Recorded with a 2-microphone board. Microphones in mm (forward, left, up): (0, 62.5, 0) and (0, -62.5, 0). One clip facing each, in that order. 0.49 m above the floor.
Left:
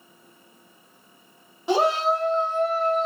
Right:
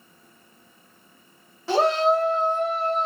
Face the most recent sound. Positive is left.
turn(degrees=-30)  # may be behind; listen again after turning